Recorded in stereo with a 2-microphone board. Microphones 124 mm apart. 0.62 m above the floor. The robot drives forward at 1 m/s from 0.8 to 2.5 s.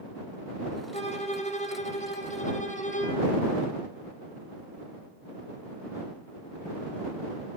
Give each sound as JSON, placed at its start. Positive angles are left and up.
{"t": 0.9, "sound": "a violin", "side_deg": 65, "distance_m": 7.0}